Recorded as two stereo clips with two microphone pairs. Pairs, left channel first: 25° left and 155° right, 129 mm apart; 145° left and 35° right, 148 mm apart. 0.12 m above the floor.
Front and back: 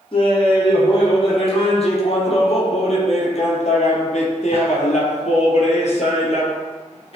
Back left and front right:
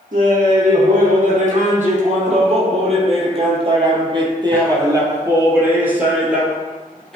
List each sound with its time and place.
0.1 s laughter: 20° right, 4 m; by 7.2 s 60° left, 2.5 m